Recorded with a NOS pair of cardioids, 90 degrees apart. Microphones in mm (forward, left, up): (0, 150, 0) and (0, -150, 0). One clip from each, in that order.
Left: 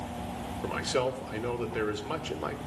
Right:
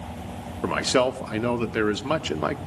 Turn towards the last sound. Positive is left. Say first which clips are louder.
# right 8 dB
turn(degrees=-50)